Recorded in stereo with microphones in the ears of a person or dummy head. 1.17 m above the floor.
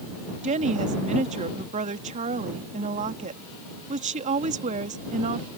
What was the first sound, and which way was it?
A woman speaking, 40° right (ahead or behind).